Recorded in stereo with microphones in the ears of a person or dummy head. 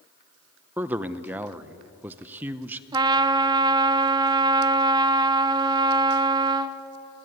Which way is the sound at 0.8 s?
15° right (ahead or behind).